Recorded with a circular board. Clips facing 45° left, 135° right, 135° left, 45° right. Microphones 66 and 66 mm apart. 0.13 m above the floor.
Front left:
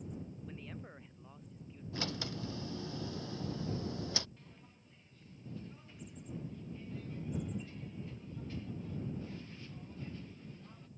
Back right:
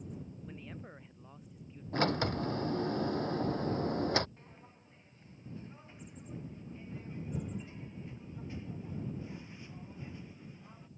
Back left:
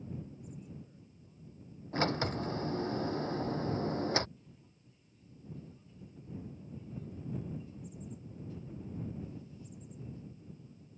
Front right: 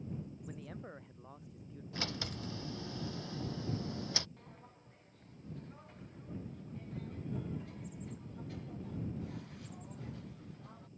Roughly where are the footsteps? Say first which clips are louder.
Back right 2 dB, front right 4 dB; right.